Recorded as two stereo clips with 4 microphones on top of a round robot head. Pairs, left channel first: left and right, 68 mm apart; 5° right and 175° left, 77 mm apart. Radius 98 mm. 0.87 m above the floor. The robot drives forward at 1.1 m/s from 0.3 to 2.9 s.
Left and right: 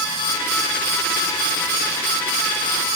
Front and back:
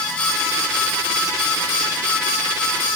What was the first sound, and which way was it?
Only background noise.